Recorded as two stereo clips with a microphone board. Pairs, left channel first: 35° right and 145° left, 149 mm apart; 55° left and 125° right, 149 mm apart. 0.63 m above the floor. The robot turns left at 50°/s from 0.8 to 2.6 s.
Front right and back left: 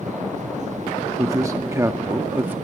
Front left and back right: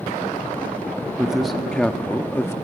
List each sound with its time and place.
1.2 s a man speaking: 160° left, 0.7 m; by 2.5 s 90° left, 0.7 m